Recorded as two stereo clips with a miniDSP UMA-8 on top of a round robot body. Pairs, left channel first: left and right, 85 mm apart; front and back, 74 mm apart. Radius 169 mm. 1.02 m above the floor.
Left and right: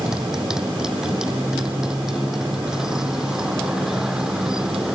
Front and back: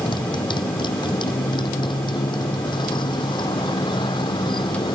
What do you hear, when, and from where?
0.0 s a motorcycle: 5° right